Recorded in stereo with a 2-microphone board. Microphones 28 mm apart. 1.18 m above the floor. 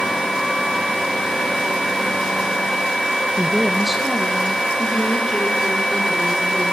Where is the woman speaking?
5° left (ahead or behind), 0.9 m; by 6.7 s 20° right (ahead or behind), 5.5 m.